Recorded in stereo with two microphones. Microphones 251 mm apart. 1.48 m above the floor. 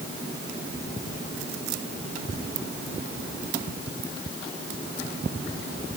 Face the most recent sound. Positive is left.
No sound to turn to.